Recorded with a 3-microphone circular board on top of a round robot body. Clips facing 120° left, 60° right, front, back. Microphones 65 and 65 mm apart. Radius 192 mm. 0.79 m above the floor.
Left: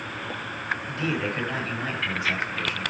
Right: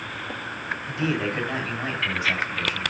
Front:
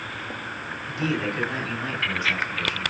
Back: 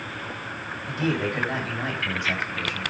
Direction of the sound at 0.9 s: 140° right.